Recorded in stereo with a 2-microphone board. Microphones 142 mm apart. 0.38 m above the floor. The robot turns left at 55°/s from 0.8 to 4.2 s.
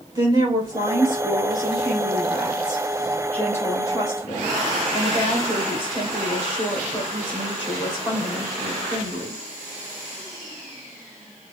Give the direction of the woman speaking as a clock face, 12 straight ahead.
2 o'clock.